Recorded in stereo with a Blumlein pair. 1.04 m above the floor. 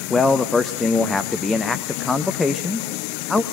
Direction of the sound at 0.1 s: 10° left.